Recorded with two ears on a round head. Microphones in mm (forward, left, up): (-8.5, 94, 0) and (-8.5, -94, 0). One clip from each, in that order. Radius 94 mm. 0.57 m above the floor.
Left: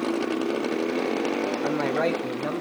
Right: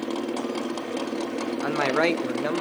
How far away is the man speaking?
About 1.2 m.